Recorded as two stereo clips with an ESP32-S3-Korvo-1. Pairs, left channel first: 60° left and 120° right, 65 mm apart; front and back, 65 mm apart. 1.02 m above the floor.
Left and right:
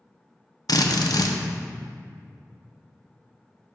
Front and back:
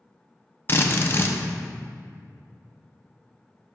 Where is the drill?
50° left, 0.6 m.